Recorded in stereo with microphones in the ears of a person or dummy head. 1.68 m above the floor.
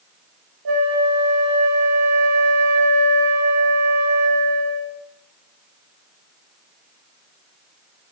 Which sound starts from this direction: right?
A flute, at 0.7 s.